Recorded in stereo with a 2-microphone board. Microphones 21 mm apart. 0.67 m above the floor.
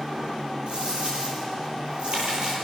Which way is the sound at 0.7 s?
55° right (ahead or behind).